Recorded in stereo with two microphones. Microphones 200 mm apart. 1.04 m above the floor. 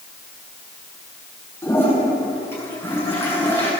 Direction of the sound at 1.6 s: 10° left (ahead or behind).